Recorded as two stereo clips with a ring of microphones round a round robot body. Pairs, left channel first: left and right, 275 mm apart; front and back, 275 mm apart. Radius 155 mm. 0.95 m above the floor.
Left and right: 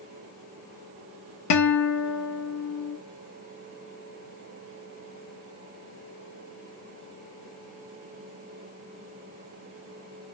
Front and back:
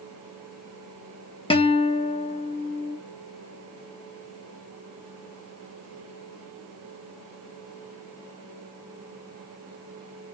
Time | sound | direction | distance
1.5 | a guitar | 70° left | 0.7 m